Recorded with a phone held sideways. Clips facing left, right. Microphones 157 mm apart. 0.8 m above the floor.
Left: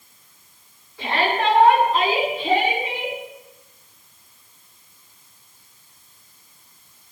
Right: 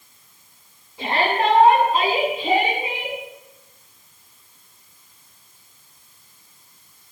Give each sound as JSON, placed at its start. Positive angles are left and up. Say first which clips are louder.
{"t": 1.0, "sound": "a shout", "louder": "right 1 dB", "side_deg": -25, "distance_m": 9.0}